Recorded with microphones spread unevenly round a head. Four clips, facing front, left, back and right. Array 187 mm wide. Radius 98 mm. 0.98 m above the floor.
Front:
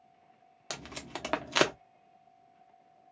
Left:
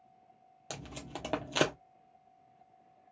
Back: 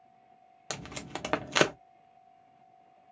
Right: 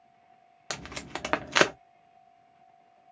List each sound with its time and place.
0.7 s tape being pulled: 130° right, 0.5 m